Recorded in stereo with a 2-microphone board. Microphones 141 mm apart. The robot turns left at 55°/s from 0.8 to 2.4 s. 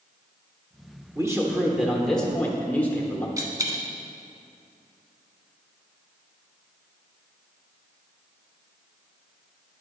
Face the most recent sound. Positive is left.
turn(degrees=-25)  # may be behind; listen again after turning